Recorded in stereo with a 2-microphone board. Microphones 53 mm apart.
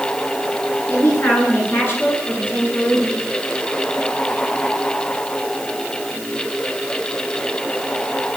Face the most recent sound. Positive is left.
turn(degrees=30)  # may be behind; listen again after turning